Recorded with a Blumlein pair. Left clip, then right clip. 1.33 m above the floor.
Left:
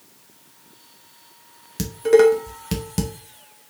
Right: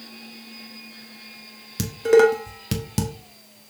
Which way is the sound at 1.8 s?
5° right.